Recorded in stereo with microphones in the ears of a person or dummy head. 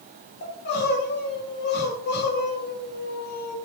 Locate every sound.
0.4 s crying: 50° left (ahead or behind), 2.5 m